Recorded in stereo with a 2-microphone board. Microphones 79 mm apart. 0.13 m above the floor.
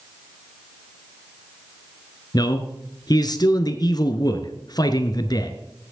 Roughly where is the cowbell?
No cowbell in this recording.